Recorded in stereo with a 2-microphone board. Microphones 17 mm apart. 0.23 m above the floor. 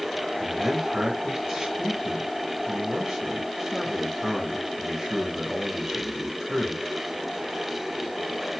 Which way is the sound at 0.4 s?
40° right (ahead or behind).